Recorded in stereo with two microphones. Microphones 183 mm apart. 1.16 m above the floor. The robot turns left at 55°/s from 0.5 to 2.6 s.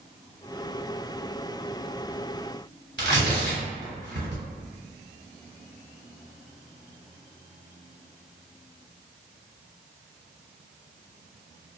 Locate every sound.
3.0 s tearing paper: 70° right (ahead or behind), 1.8 m